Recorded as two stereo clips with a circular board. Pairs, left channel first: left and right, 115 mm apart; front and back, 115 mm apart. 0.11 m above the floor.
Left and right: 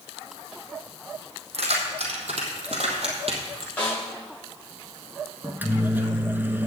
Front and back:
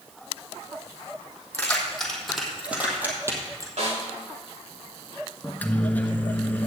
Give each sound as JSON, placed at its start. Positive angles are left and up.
{"t": 1.5, "sound": "keys jangling", "azimuth_deg": -75, "distance_m": 3.0}
{"t": 3.8, "sound": "a snare drum", "azimuth_deg": 165, "distance_m": 6.0}
{"t": 5.4, "sound": "a microwave", "azimuth_deg": -50, "distance_m": 0.9}